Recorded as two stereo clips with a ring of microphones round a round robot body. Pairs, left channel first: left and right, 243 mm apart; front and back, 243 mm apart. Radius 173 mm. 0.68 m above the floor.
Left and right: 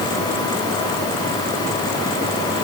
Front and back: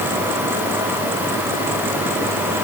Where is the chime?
I don't hear a chime.